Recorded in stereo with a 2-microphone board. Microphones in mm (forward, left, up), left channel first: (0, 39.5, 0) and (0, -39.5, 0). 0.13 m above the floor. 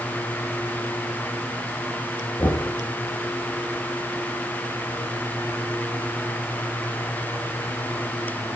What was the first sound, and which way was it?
Knocking, 60° left (ahead or behind).